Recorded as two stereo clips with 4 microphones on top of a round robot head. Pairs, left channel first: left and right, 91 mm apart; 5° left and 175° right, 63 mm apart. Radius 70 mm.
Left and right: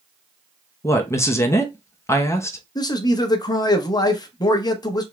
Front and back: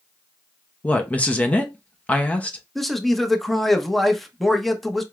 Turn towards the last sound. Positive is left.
turn(degrees=90)